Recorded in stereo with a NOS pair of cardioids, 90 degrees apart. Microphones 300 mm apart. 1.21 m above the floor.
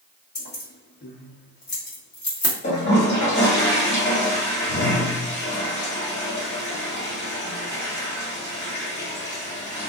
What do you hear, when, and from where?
0.3 s keys jangling: 35° left, 1.3 m
2.6 s a toilet flushing: 35° left, 1.8 m